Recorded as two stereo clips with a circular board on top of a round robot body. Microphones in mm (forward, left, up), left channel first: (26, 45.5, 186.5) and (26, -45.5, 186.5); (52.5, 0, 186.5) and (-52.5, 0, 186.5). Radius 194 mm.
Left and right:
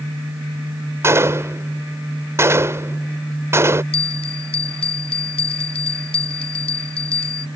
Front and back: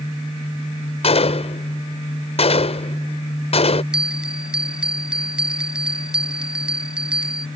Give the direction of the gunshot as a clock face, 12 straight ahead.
1 o'clock.